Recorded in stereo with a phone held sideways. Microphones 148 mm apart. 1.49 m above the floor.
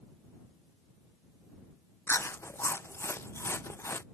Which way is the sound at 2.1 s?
15° left (ahead or behind).